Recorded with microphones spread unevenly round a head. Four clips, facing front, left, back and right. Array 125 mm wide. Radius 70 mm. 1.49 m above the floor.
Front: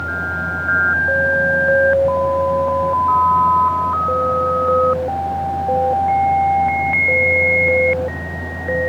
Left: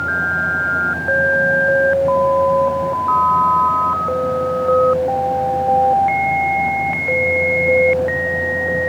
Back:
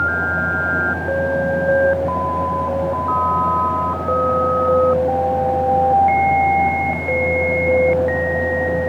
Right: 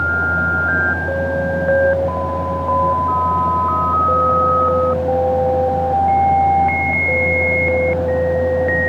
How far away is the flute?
No flute in this recording.